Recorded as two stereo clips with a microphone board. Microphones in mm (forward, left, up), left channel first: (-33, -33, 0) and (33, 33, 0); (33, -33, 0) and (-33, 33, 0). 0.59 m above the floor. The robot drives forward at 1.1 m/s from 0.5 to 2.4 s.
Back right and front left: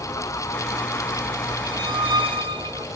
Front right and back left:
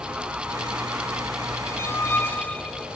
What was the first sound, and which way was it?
A squeak, 10° left.